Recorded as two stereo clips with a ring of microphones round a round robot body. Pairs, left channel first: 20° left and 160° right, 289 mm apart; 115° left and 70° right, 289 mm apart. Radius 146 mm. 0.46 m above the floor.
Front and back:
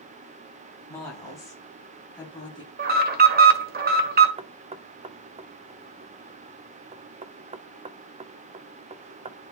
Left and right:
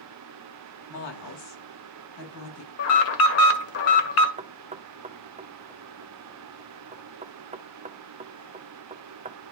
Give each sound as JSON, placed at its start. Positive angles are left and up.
{"t": 0.9, "sound": "a woman speaking", "azimuth_deg": 105, "distance_m": 4.0}
{"t": 2.8, "sound": "an alarm", "azimuth_deg": 145, "distance_m": 1.4}
{"t": 4.4, "sound": "knocking", "azimuth_deg": -110, "distance_m": 0.5}